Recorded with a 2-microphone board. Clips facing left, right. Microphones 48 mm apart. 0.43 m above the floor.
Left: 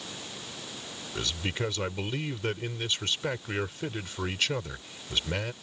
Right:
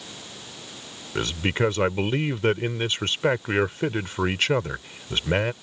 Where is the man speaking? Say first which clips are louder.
Right 8 dB; 40° right (ahead or behind).